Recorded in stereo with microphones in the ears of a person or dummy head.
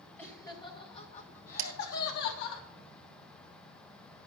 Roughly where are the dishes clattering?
Right.